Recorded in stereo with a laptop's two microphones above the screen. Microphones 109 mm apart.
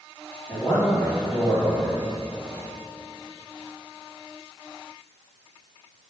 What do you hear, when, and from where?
0.5 s a man speaking: 35° left (ahead or behind), 1.5 m